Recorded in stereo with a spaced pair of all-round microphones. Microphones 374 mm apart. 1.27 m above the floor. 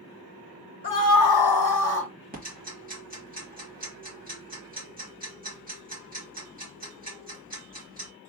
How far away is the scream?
About 0.8 m.